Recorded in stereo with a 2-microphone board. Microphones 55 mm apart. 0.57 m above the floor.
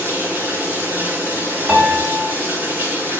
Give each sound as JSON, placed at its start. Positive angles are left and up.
{"t": 0.0, "sound": "running water", "side_deg": -40, "distance_m": 4.0}
{"t": 1.7, "sound": "a piano", "side_deg": -35, "distance_m": 1.8}